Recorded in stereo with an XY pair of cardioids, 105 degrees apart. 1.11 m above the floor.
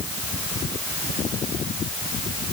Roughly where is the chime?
I don't hear a chime.